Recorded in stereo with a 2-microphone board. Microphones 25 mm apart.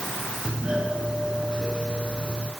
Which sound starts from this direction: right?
A doorbell, at 0.5 s.